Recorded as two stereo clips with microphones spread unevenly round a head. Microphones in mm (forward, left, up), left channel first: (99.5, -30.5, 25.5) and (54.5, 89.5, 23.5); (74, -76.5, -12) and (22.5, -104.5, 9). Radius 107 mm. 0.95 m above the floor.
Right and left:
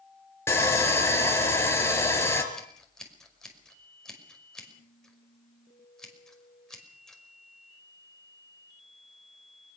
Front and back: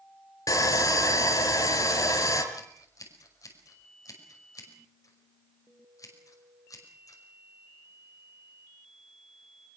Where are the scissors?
15° left, 5.5 m.